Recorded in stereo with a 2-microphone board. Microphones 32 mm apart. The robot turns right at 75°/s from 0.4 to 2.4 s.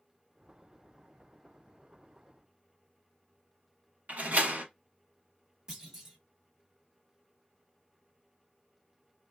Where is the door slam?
55° right (ahead or behind), 1.1 m.